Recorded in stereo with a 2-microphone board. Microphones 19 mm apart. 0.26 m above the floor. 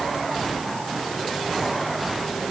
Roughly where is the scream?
I don't hear a scream.